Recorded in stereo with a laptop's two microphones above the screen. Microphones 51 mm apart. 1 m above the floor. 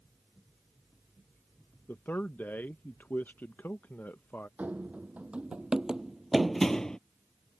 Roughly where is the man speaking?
Left.